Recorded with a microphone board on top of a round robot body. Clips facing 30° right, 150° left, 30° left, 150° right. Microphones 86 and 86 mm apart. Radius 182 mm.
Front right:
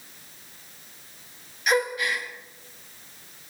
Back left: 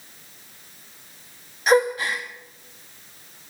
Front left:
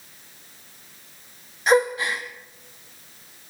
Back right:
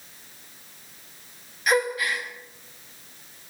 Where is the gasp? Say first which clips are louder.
Back left 5 dB, front left 4 dB; 90° left, 0.9 m.